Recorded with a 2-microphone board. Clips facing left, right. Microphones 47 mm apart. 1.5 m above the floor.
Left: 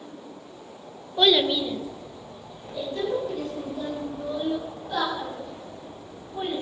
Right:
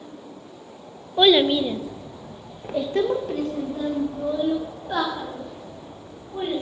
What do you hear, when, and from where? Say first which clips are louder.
1.2 s a child speaking: right 4 dB; 20° right (ahead or behind), 0.9 m; by 6.6 s 40° right (ahead or behind), 4 m